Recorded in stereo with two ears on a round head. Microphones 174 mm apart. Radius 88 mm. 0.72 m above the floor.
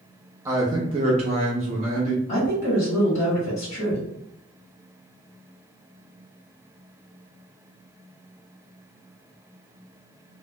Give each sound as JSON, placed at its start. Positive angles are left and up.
{"t": 0.5, "sound": "a man speaking", "side_deg": -15, "distance_m": 0.5}
{"t": 2.3, "sound": "a woman speaking", "side_deg": 35, "distance_m": 1.4}